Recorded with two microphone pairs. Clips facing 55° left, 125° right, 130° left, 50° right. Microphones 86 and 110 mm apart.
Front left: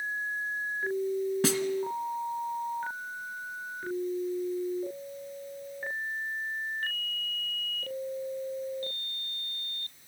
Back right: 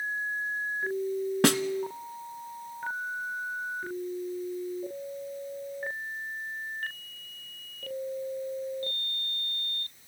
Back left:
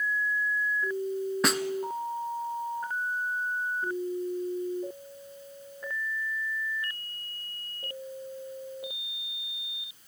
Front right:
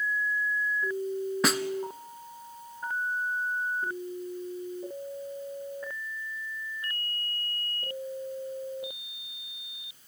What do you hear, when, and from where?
1.4 s a snare drum: 140° right, 0.9 m